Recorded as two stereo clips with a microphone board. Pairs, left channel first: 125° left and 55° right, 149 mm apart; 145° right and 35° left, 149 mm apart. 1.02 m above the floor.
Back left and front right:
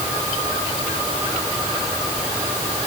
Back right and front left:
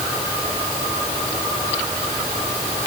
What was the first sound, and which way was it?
Only background noise.